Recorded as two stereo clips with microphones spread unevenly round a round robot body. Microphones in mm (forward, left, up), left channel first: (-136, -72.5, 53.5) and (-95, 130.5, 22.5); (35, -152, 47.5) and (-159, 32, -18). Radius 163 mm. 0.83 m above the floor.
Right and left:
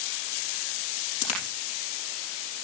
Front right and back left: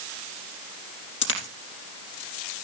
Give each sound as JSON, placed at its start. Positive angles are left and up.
{"t": 1.2, "sound": "a dropped coin", "azimuth_deg": -80, "distance_m": 4.0}